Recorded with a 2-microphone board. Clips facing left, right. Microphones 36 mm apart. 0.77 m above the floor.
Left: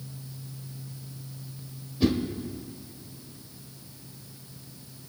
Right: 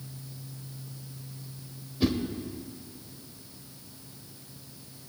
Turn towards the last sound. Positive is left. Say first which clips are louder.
# left 3 dB
turn(degrees=-5)  # may be behind; listen again after turning